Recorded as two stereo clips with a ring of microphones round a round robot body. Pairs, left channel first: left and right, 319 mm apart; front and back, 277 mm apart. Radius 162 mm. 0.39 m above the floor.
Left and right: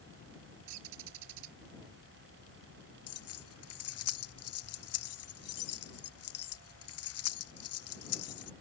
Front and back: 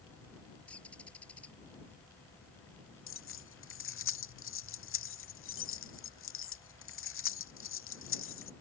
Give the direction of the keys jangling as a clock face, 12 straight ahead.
11 o'clock.